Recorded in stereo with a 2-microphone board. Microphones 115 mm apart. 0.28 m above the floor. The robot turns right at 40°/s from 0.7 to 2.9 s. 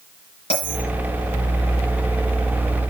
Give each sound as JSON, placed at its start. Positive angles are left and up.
{"t": 0.5, "sound": "a bell", "side_deg": 60, "distance_m": 3.5}